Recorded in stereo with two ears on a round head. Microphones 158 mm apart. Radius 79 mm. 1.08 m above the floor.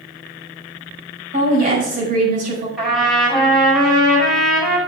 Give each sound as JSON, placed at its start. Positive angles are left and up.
{"t": 1.3, "sound": "a woman speaking", "side_deg": -45, "distance_m": 5.5}
{"t": 2.8, "sound": "a trumpet", "side_deg": 0, "distance_m": 5.5}